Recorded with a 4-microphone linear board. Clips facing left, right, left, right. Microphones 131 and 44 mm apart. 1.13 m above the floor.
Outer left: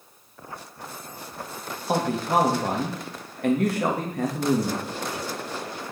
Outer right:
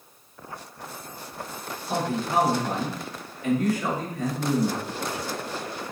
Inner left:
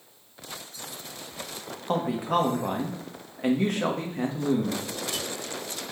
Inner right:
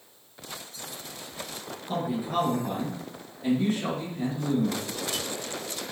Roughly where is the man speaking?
Left.